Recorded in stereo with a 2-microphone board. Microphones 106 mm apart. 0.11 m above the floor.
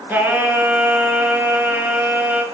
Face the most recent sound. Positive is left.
turn(degrees=-15)  # may be behind; listen again after turning